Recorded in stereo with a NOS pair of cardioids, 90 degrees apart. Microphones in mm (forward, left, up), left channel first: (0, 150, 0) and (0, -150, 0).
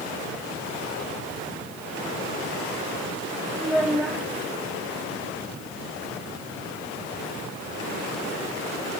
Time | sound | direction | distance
3.6 | a child speaking | straight ahead | 3 m